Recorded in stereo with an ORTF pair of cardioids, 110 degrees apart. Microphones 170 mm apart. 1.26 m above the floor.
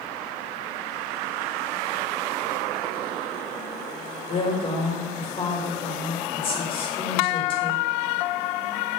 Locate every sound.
4.3 s a woman speaking: 30° left, 1.7 m